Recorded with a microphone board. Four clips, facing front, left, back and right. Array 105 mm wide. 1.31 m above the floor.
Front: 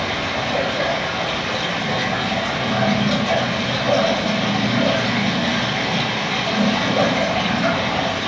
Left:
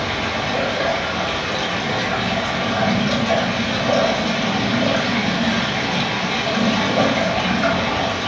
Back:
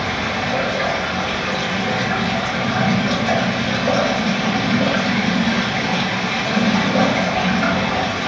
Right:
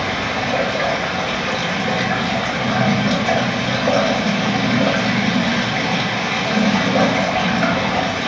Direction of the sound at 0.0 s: 125° right.